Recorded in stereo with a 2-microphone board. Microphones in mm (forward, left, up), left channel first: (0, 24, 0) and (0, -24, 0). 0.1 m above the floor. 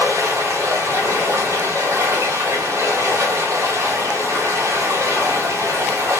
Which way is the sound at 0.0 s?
65° right (ahead or behind).